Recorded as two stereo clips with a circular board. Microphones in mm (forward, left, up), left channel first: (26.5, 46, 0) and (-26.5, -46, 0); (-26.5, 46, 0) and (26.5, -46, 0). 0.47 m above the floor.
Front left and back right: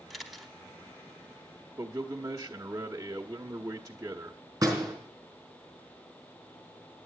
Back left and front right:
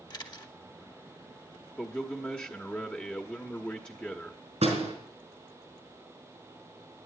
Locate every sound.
0.1 s a camera shutter: 150° left, 1.2 m
1.8 s a man speaking: 165° right, 1.0 m
4.6 s a door slam: 60° right, 4 m